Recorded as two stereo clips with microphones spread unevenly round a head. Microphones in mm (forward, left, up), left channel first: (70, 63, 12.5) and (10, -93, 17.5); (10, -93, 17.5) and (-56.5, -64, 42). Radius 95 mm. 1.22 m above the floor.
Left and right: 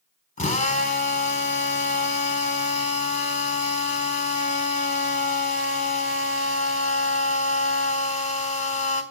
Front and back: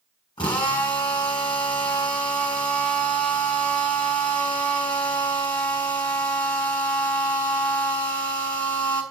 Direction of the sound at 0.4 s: 25° left.